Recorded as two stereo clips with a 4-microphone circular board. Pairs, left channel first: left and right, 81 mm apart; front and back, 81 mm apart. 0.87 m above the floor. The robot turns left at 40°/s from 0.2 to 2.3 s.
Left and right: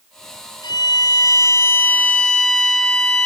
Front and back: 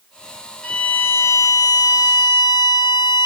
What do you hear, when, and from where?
0.6 s a violin: 75° left, 2 m; by 3.3 s 5° left, 2 m